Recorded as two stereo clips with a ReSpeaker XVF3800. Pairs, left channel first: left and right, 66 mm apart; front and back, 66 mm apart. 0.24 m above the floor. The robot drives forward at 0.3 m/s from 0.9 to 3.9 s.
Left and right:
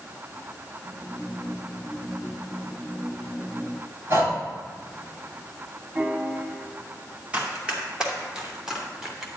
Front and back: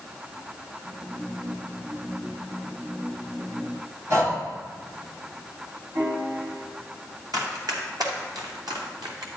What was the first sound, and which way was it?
Breathing, 140° right.